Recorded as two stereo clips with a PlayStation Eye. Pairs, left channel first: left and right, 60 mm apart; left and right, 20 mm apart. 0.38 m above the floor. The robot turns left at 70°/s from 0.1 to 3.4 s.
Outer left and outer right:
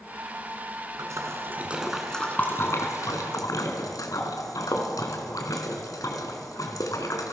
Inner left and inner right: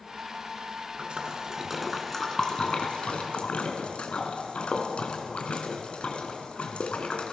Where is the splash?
65° right (ahead or behind), 2.5 m; by 7.3 s 75° left (ahead or behind), 2.5 m.